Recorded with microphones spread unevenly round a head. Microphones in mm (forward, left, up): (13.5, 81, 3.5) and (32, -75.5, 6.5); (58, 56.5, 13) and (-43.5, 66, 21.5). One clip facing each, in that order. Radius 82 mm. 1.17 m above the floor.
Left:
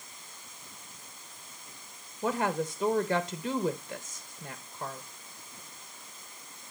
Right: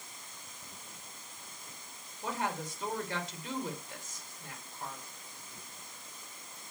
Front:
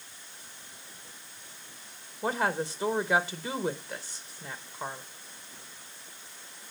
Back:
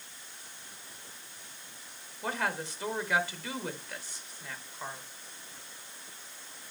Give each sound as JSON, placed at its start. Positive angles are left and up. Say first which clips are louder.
{"t": 2.2, "sound": "a woman speaking", "louder": "left 7 dB, front 5 dB", "azimuth_deg": 70, "distance_m": 0.9}